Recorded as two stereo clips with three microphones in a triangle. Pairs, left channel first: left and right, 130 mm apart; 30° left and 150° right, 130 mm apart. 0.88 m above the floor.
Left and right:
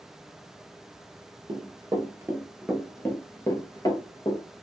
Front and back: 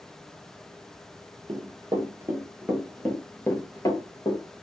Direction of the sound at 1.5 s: 125° right.